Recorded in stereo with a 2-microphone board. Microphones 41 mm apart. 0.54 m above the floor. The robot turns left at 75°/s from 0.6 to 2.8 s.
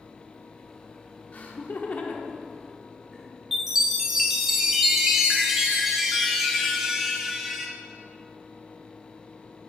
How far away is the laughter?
About 1.1 m.